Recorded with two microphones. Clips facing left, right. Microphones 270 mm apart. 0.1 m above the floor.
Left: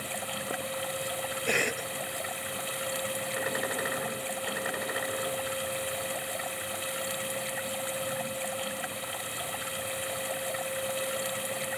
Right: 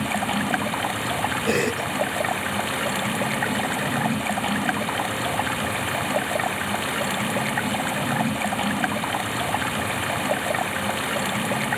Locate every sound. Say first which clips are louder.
0.0 s running water: right 12 dB; 75° right (ahead or behind)
1.5 s a cough: right 10 dB; 50° right (ahead or behind)